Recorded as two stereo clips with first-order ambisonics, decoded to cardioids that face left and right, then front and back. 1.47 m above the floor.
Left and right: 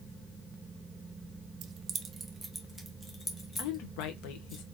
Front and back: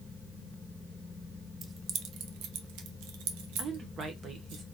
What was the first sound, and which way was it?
Keys jangling, 115° right.